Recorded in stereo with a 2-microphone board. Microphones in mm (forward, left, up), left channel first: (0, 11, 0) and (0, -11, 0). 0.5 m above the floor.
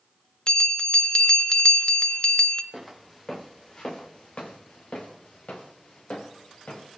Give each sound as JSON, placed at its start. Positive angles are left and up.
{"t": 0.5, "sound": "a bell", "side_deg": 40, "distance_m": 0.8}
{"t": 2.7, "sound": "footsteps", "side_deg": 10, "distance_m": 2.5}